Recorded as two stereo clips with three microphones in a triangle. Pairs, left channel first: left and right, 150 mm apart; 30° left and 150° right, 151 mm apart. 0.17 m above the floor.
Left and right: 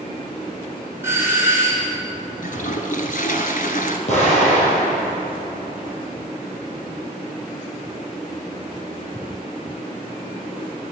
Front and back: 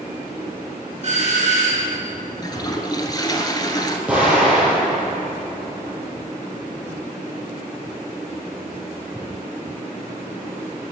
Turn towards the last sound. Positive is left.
turn(degrees=125)